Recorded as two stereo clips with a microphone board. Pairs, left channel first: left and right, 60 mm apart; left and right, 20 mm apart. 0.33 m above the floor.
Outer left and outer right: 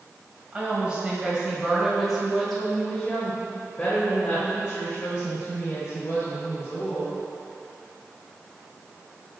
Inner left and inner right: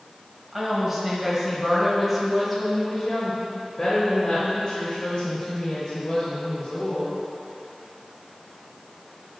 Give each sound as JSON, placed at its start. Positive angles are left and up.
{"t": 0.5, "sound": "a woman speaking", "side_deg": -20, "distance_m": 1.7}